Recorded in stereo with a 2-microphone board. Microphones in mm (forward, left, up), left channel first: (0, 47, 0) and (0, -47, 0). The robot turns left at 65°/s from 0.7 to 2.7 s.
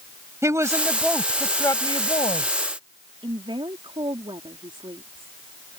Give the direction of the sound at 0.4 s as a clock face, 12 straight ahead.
5 o'clock.